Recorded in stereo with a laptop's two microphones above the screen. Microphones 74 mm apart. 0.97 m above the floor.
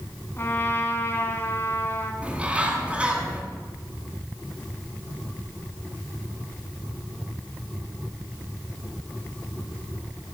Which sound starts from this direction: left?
A trumpet, at 0.4 s.